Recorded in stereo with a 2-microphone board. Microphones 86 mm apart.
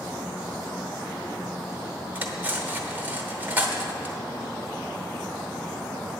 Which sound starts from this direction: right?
Cutlery clinking, at 2.1 s.